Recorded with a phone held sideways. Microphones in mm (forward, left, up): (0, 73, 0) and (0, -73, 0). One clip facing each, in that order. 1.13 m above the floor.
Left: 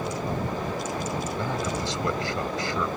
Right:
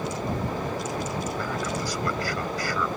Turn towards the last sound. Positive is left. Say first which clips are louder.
# left 1 dB
turn(degrees=25)  # may be behind; listen again after turning